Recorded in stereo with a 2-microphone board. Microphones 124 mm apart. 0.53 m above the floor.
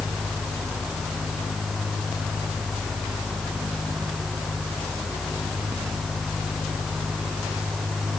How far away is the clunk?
No clunk in this recording.